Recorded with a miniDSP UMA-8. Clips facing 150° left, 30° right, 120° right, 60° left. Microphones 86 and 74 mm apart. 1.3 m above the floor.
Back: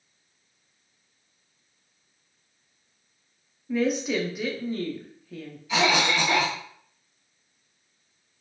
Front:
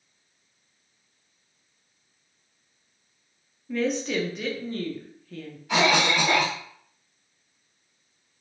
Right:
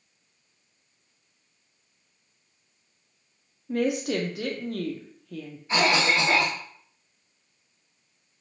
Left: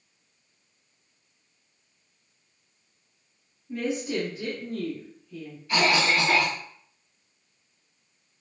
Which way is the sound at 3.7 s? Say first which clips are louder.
Back 1 dB, right 3 dB; 125° right.